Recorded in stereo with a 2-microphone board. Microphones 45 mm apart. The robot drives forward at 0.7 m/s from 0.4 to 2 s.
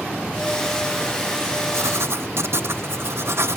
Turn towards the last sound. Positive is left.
turn(degrees=-60)  # may be behind; listen again after turning